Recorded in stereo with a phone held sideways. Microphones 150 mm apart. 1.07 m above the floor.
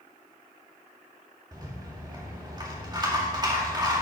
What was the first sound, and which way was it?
A rattle, 30° right (ahead or behind).